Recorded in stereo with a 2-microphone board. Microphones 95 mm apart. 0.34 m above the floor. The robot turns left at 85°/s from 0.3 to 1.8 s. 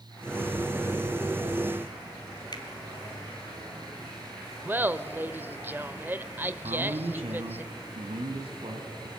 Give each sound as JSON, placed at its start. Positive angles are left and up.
{"t": 2.5, "sound": "a finger snap", "side_deg": 45, "distance_m": 2.0}
{"t": 4.7, "sound": "laughter", "side_deg": -20, "distance_m": 0.9}
{"t": 6.6, "sound": "a man speaking", "side_deg": -70, "distance_m": 3.5}